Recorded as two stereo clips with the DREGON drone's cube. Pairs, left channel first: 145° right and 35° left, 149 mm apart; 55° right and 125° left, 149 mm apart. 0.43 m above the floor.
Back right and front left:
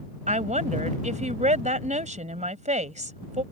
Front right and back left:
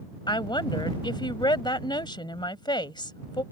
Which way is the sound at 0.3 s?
Straight ahead.